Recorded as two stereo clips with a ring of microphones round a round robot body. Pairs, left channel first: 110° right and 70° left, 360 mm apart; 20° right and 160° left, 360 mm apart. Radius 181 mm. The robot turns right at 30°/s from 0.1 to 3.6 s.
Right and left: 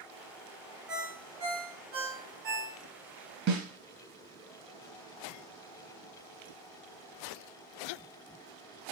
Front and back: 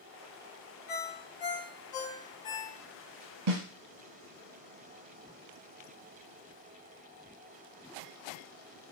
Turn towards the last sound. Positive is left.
turn(degrees=130)